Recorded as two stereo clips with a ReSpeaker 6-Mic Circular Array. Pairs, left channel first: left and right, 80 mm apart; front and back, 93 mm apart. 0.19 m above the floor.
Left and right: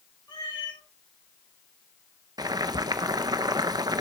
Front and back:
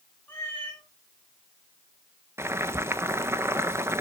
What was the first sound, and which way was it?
A cat meowing, 70° left.